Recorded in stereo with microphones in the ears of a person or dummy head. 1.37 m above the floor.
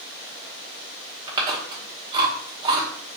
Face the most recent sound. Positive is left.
turn(degrees=-20)  # may be behind; listen again after turning